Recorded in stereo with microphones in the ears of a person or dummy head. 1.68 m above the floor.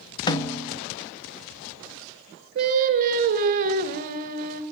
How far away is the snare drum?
About 1.1 m.